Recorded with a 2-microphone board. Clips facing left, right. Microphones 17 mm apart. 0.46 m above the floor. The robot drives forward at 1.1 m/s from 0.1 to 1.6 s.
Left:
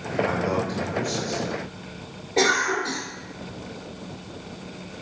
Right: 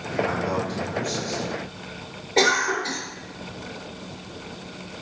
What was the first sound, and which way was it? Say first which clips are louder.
A man speaking: left 1 dB; 25° left (ahead or behind).